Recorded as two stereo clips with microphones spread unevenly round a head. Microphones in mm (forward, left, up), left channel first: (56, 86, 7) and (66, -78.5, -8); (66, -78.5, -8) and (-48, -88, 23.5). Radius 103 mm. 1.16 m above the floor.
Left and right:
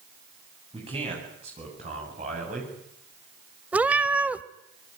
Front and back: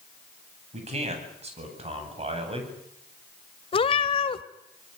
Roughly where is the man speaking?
Behind right.